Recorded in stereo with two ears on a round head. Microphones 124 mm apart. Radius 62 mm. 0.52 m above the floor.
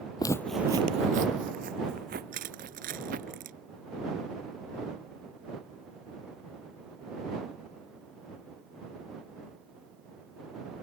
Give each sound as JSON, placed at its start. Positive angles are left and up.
{"t": 0.2, "sound": "footsteps", "side_deg": 30}
{"t": 2.3, "sound": "crushing", "side_deg": -70}